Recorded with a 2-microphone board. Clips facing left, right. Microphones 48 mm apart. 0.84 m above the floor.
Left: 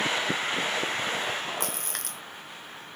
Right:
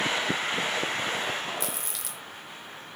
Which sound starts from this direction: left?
A splash, at 1.6 s.